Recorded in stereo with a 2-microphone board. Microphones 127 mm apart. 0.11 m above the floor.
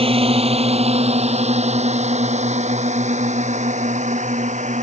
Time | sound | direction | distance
0.0 | a drone | 50° right (ahead or behind) | ?